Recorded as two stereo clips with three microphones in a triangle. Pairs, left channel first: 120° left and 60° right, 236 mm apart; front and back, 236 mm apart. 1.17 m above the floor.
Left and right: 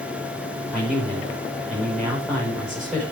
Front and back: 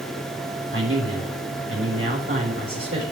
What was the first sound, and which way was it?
A man speaking, 150° right.